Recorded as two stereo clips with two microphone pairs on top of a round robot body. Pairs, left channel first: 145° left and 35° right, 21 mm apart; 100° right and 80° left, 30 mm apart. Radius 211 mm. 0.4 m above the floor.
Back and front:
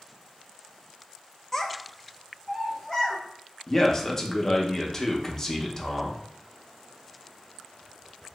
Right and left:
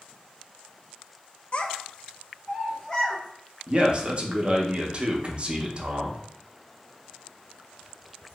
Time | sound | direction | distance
1.5 | a child speaking | 140° right | 0.6 m
3.7 | a man speaking | 80° left | 0.8 m